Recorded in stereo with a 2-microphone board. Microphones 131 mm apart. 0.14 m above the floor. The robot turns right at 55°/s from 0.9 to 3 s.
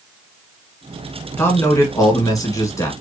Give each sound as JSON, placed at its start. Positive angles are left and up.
{"t": 1.4, "sound": "a man speaking", "side_deg": 15, "distance_m": 1.7}